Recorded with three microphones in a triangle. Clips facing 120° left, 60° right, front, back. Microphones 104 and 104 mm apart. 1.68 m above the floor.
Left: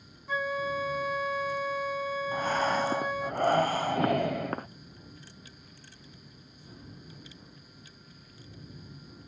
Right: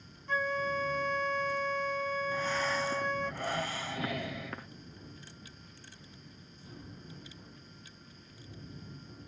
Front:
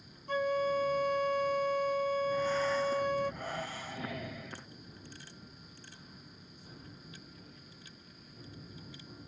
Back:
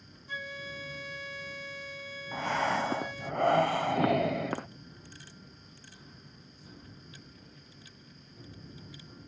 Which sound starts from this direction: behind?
Breathing, at 2.3 s.